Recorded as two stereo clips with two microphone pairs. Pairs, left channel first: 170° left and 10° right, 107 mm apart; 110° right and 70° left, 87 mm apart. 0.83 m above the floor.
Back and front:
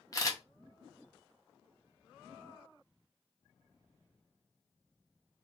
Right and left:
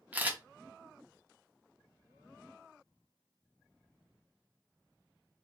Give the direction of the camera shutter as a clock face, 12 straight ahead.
8 o'clock.